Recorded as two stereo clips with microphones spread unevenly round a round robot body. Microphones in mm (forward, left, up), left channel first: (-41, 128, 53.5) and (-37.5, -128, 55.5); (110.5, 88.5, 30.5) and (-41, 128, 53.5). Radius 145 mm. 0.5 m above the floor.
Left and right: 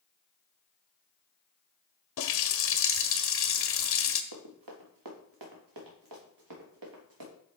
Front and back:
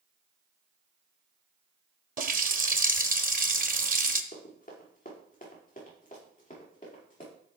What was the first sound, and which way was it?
A running tap, 125° left.